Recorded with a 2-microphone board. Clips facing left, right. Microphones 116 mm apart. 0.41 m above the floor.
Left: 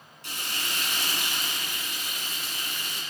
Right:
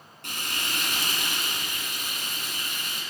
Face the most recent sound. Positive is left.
turn(degrees=-60)  # may be behind; listen again after turning